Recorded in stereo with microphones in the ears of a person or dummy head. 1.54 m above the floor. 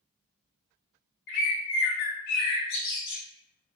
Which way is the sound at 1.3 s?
55° left (ahead or behind).